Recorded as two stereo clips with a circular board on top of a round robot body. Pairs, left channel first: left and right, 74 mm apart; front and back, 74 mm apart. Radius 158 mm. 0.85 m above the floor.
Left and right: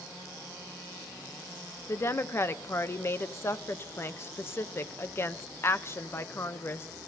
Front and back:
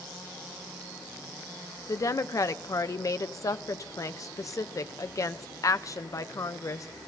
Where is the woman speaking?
40° left, 0.8 m.